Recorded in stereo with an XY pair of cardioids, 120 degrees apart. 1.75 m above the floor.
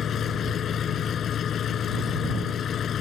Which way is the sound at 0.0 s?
50° left.